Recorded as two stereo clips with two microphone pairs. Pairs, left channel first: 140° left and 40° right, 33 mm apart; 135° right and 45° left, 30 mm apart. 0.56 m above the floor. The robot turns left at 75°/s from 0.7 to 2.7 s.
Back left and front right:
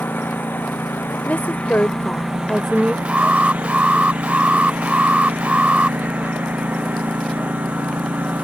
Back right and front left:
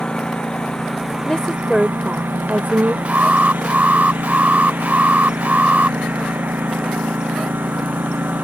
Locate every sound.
0.0 s a lawn mower: 160° left; by 8.4 s 10° left
1.3 s a woman speaking: 175° left; by 3.0 s 65° left
3.0 s an alarm: 10° left